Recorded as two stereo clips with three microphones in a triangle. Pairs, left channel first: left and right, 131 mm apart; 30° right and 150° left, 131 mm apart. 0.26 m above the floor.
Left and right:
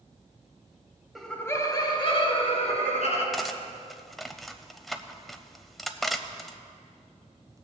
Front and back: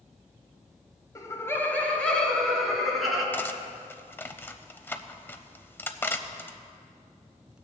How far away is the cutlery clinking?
About 0.6 m.